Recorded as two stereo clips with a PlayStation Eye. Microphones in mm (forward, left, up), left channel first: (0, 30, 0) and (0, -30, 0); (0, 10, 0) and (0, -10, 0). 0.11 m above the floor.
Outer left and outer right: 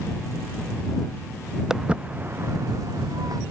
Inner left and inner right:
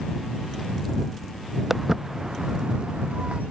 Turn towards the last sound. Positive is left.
turn(degrees=-85)